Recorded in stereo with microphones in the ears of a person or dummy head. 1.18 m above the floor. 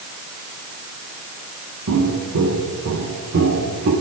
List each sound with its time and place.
1.9 s footsteps: 70° right (ahead or behind), 3.5 m; by 3.9 s 60° right (ahead or behind), 4.5 m